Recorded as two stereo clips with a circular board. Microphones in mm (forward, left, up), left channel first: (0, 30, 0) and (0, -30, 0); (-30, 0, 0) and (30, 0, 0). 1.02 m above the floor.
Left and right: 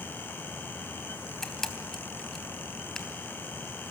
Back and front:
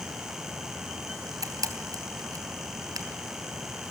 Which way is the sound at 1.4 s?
10° left.